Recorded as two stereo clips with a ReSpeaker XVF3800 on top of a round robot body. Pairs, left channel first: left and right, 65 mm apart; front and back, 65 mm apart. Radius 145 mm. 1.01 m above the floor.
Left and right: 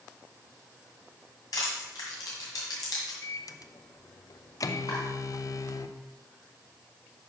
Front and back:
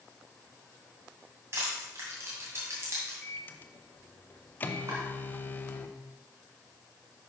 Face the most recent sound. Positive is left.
turn(degrees=130)